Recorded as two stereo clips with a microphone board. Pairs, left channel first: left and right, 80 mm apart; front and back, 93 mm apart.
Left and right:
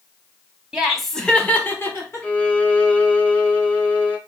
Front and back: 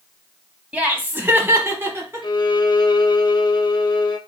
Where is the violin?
20° left, 0.9 m.